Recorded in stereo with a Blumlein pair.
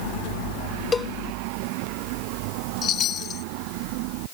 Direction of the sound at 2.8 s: 30° left.